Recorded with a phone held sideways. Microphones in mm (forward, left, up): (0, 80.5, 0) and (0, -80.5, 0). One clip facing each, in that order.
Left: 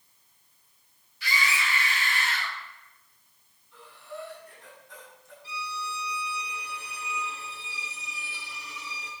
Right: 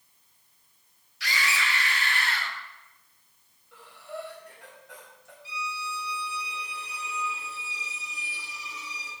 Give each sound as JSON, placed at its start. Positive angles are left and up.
{"t": 1.2, "sound": "a scream", "side_deg": -80, "distance_m": 1.9}
{"t": 3.7, "sound": "breathing", "side_deg": -80, "distance_m": 4.0}
{"t": 5.4, "sound": "a violin", "side_deg": 70, "distance_m": 2.5}